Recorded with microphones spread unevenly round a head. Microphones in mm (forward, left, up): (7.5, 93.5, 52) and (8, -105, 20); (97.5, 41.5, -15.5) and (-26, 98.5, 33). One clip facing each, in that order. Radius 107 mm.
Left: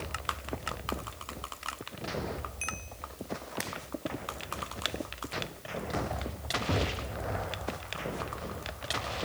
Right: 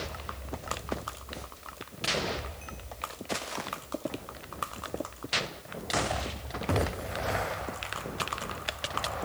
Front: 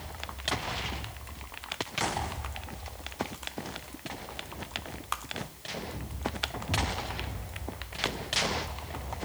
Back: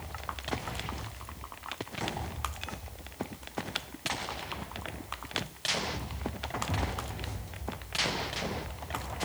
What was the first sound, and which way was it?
Only background noise.